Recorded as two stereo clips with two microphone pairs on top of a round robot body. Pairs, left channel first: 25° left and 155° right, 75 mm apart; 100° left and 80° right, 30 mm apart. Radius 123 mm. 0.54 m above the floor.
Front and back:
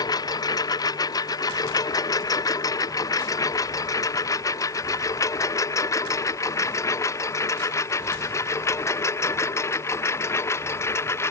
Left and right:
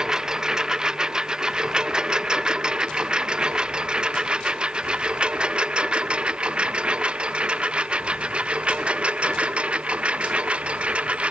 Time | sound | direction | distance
0.0 | a lawn mower | 10° right | ?